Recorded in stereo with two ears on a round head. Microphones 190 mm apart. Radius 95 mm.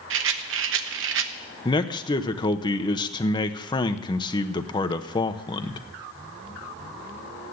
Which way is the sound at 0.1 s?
65° right (ahead or behind).